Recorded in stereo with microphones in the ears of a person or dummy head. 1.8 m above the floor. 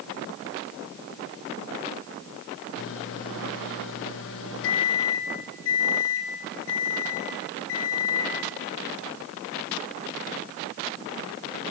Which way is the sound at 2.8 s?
70° left (ahead or behind).